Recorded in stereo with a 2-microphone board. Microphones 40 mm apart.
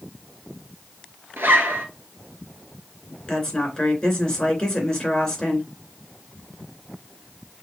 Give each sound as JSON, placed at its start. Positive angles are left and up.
{"t": 1.4, "sound": "a zipper", "side_deg": -70, "distance_m": 1.1}
{"t": 3.3, "sound": "a woman speaking", "side_deg": 20, "distance_m": 3.0}